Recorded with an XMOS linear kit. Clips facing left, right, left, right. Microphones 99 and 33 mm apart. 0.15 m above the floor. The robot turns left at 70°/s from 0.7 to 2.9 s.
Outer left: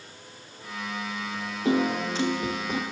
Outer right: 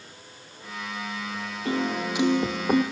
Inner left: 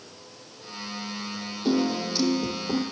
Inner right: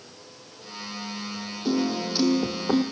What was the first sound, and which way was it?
A piano, 20° left.